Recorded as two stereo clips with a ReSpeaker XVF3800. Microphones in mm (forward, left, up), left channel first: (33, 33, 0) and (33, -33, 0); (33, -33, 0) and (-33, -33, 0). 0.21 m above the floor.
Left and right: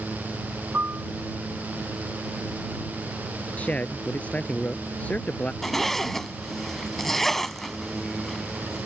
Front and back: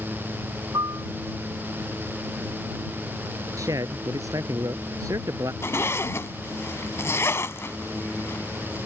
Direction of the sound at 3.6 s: 160° left.